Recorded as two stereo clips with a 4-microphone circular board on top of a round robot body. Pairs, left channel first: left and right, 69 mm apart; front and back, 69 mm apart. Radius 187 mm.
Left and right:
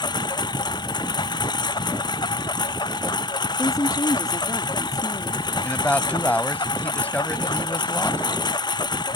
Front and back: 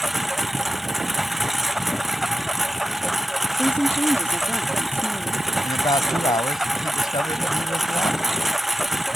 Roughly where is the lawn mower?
Left.